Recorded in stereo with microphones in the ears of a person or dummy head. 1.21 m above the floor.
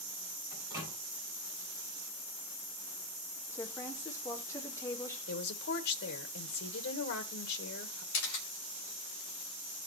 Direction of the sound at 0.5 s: 15° right (ahead or behind).